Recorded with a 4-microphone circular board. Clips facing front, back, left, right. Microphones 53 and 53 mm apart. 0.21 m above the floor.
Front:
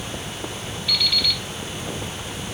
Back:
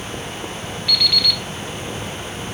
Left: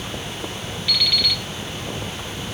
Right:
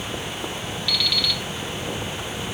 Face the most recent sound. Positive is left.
turn(degrees=165)